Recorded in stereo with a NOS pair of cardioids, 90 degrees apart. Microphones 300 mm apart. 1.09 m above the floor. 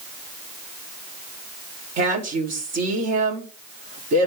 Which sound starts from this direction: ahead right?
A woman speaking, at 2.0 s.